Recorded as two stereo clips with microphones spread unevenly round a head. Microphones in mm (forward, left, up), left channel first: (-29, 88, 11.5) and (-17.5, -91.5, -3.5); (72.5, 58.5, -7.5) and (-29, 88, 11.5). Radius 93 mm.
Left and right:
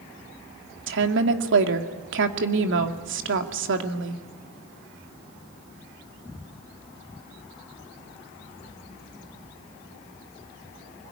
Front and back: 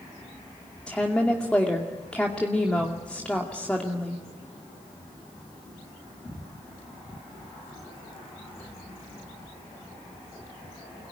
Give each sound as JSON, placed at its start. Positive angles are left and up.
{"t": 0.9, "sound": "a woman speaking", "azimuth_deg": -100, "distance_m": 2.0}